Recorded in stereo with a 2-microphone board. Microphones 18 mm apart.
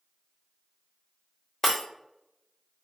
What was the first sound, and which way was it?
Breaking glass, 15° left (ahead or behind).